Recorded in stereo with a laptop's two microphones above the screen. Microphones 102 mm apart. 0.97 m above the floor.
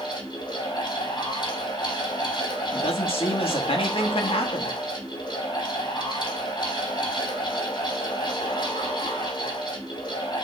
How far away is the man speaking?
About 1.6 m.